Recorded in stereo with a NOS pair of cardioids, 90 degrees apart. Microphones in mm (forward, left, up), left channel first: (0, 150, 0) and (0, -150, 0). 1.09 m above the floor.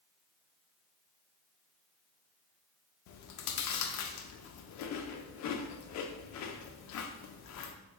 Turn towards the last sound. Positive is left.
turn(degrees=60)